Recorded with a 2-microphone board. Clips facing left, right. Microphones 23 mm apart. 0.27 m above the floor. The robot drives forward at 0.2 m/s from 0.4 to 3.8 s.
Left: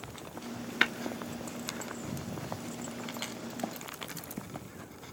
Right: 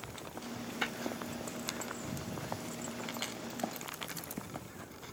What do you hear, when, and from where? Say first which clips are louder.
0.8 s tapping: left 9 dB; 80° left, 0.8 m; by 0.9 s 85° left, 0.8 m